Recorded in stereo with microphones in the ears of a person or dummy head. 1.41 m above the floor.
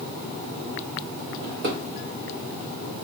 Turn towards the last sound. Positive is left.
turn(degrees=-50)  # may be behind; listen again after turning